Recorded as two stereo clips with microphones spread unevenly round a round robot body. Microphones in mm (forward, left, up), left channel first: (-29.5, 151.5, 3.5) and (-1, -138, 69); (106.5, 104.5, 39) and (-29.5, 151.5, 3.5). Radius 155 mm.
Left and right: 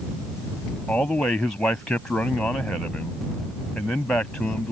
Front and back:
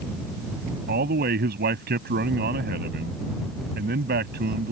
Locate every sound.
0.9 s a man speaking: 175° right